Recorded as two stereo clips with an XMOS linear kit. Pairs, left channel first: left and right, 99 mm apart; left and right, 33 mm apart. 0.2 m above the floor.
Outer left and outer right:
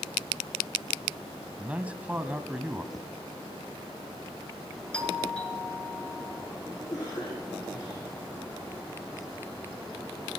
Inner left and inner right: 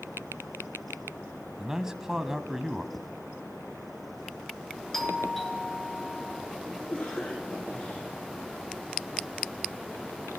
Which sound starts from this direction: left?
A cough, at 6.9 s.